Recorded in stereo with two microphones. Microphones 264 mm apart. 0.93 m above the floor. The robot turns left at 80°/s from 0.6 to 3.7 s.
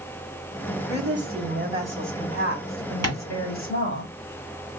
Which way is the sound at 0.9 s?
90° right.